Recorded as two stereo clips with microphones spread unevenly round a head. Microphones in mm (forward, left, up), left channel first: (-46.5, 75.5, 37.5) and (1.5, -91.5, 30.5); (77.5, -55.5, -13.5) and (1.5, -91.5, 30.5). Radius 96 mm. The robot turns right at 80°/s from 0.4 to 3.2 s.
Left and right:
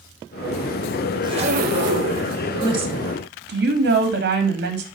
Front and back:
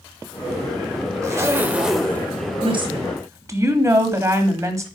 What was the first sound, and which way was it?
A zipper, 140° right.